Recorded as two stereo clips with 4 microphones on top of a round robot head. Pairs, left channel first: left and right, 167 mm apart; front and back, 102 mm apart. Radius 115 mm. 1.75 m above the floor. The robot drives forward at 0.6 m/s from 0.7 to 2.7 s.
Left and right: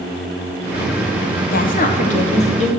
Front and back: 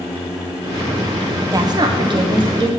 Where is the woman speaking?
125° left, 1.4 m; by 2.7 s 145° left, 1.9 m.